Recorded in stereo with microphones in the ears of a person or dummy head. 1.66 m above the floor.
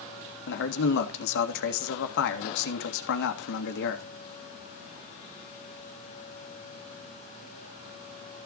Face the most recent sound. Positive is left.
turn(degrees=60)  # may be behind; listen again after turning